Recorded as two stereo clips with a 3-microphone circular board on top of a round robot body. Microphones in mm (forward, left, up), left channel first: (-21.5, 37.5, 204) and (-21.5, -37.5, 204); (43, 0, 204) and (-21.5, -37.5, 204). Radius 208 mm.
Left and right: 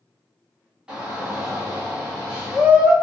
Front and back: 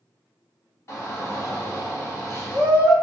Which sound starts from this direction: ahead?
A shout, at 0.9 s.